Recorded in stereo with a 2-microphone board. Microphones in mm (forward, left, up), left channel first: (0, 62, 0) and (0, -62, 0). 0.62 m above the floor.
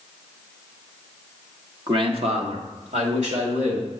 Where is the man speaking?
40° right (ahead or behind), 0.8 m; by 3.9 s 75° right (ahead or behind), 2.5 m.